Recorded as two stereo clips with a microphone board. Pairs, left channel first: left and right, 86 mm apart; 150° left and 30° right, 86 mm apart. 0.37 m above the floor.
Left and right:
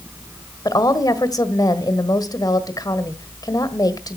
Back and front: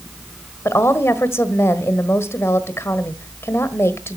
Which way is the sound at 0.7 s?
105° left.